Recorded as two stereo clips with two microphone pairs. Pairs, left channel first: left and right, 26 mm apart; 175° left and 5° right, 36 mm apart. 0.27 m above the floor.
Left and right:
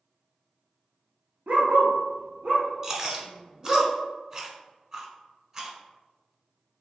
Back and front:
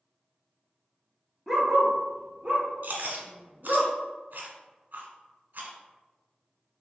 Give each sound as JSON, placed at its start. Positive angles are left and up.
{"t": 1.5, "sound": "a dog barking", "azimuth_deg": -90, "distance_m": 1.0}
{"t": 2.8, "sound": "chewing", "azimuth_deg": -30, "distance_m": 0.9}